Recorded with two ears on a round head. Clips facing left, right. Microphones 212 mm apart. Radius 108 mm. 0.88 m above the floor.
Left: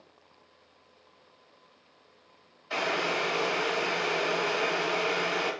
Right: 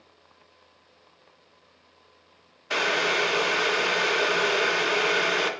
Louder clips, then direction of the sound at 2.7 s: Right 3 dB; 60° right (ahead or behind).